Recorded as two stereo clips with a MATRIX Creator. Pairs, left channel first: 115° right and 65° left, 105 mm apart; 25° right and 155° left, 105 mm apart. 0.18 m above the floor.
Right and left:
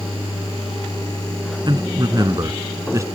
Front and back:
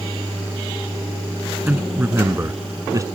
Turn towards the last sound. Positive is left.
turn(degrees=115)